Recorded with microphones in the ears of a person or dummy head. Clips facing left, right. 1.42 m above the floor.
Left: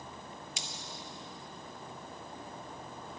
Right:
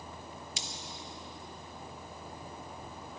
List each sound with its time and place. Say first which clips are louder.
0.6 s cutlery clinking: right 1 dB; 25° right (ahead or behind), 0.5 m